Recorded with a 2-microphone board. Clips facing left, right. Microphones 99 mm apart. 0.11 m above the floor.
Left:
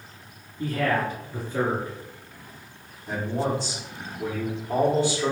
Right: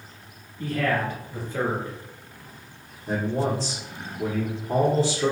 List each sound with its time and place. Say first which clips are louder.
0.6 s a man speaking: even; 15° left (ahead or behind), 1.8 m
3.1 s a man speaking: right 2 dB; 30° right (ahead or behind), 1.3 m